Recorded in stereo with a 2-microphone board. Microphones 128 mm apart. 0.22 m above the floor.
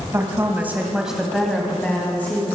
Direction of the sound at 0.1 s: 25° right (ahead or behind).